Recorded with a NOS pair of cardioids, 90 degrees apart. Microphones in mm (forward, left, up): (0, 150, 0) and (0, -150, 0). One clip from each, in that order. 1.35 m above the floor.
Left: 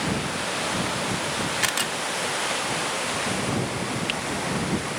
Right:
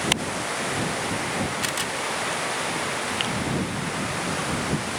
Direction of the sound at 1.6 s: 35° left.